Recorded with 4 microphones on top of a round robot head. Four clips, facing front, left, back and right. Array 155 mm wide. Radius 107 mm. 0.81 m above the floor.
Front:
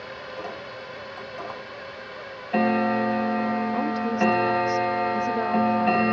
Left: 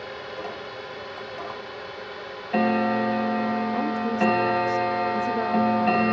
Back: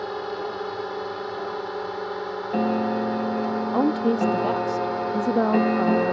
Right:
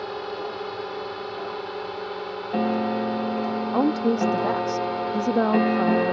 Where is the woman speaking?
135° right.